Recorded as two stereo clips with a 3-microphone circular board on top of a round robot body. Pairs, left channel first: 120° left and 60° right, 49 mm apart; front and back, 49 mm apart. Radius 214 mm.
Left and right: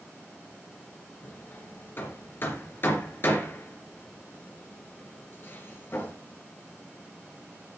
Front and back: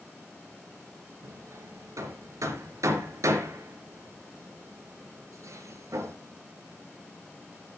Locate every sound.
1.2 s hammering: 170° left, 2.5 m